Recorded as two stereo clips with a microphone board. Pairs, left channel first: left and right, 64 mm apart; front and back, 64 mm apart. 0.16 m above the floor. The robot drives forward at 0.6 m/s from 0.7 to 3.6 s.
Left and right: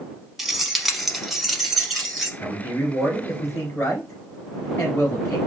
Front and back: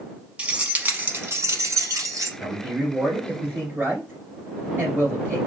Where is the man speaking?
110° left, 1.6 m; by 5.4 s 135° left, 2.0 m.